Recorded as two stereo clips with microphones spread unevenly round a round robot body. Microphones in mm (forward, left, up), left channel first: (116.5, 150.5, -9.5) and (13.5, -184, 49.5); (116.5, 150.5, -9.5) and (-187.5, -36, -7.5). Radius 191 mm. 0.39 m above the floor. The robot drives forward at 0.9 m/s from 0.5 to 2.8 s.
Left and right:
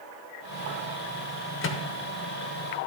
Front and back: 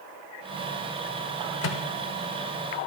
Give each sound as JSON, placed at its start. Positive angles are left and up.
{"t": 1.6, "sound": "a microwave", "azimuth_deg": 60, "distance_m": 0.8}